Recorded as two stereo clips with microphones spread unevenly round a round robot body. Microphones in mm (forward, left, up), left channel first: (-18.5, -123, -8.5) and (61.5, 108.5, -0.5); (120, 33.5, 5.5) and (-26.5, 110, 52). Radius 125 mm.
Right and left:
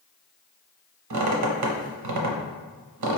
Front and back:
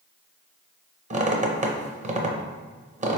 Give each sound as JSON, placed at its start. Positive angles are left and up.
{"t": 1.1, "sound": "a squeak", "azimuth_deg": 95, "distance_m": 0.8}